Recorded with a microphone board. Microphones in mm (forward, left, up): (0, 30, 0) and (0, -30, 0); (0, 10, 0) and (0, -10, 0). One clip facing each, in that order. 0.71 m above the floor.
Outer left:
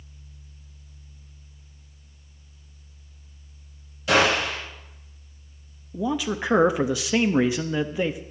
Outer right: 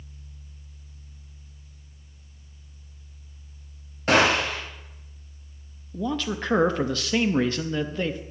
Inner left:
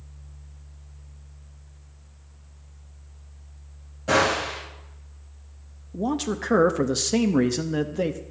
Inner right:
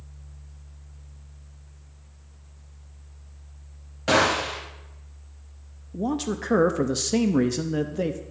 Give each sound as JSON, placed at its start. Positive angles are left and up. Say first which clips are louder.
{"t": 4.1, "sound": "a gunshot", "louder": "even, inner right 1 dB", "side_deg": -45, "distance_m": 4.0}
{"t": 5.9, "sound": "a man speaking", "louder": "outer left 2 dB, inner left 1 dB", "side_deg": 10, "distance_m": 0.5}